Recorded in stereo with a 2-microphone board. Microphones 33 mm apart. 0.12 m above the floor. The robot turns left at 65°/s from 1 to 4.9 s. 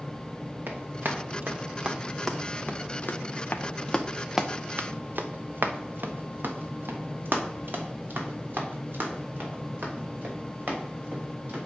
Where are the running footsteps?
85° right, 2.5 m; by 11.7 s 55° right (ahead or behind), 4.5 m.